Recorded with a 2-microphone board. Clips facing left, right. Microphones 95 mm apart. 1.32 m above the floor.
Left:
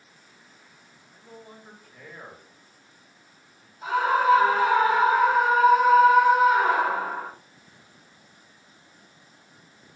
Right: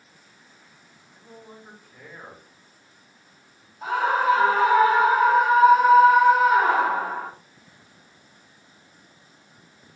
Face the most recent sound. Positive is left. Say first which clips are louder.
# even
turn(degrees=-60)  # may be behind; listen again after turning